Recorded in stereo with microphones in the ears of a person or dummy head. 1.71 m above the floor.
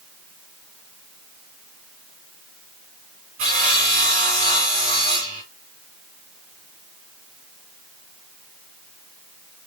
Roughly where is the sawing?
Right.